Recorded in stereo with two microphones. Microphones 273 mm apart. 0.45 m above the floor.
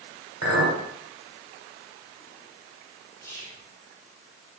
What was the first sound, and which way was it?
A clink, 60° right (ahead or behind).